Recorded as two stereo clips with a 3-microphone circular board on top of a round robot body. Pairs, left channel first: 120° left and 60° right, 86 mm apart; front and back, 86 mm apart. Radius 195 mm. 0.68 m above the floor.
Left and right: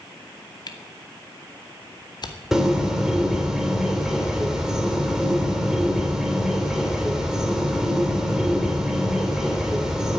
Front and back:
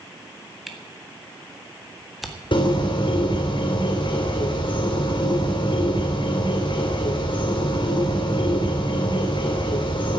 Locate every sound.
0.7 s a camera shutter: 90° left, 2 m
2.5 s a bird: 25° left, 3.5 m